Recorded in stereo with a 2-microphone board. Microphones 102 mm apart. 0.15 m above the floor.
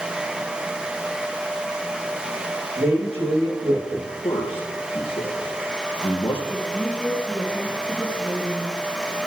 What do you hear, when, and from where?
2.8 s a woman speaking: 70° right (ahead or behind), 6.5 m
4.2 s a man speaking: 55° left (ahead or behind), 3.5 m
6.5 s a woman speaking: 20° right (ahead or behind), 2 m